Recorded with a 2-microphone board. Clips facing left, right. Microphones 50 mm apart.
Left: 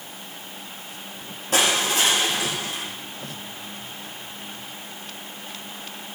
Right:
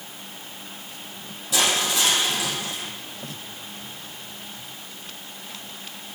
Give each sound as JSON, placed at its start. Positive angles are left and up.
{"t": 1.5, "sound": "crushing", "side_deg": 45, "distance_m": 4.0}